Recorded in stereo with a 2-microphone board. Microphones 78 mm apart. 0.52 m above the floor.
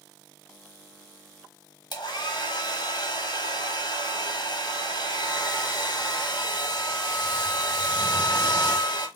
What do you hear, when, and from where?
1.9 s a hair dryer: 65° left (ahead or behind), 1.5 m